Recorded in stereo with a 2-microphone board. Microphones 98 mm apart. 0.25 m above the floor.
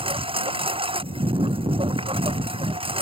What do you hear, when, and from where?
0.0 s a lawn mower: 75° right (ahead or behind)